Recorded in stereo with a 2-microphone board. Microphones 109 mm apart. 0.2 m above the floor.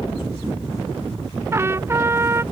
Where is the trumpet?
25° right (ahead or behind).